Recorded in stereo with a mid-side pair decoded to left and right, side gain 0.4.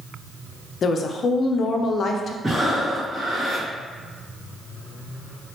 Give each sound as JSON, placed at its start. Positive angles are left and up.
{"t": 0.8, "sound": "a woman speaking", "azimuth_deg": 60, "distance_m": 0.5}
{"t": 2.4, "sound": "breathing", "azimuth_deg": -25, "distance_m": 1.8}